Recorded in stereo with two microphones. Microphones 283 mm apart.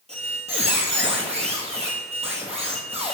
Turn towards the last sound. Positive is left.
turn(degrees=-20)  # may be behind; listen again after turning